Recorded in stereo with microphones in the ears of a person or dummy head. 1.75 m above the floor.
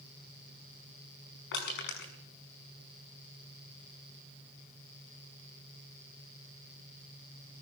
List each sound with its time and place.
1.5 s crushing: 65° left (ahead or behind), 6 m